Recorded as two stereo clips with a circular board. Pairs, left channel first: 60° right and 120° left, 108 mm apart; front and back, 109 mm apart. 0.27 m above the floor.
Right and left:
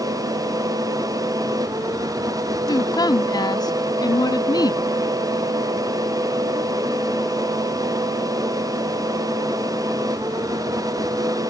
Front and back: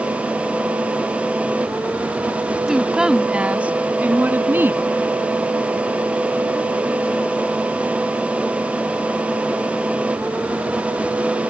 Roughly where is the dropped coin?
No dropped coin in this recording.